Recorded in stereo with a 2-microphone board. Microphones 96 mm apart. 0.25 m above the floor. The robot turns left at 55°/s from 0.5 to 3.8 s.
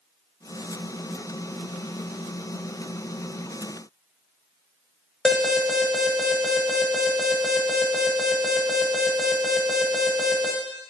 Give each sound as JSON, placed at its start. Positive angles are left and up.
{"t": 5.2, "sound": "an alarm", "side_deg": -5, "distance_m": 0.8}